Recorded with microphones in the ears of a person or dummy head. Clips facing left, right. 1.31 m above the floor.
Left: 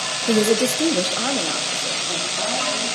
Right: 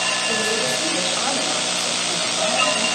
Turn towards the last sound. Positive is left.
turn(degrees=10)  # may be behind; listen again after turning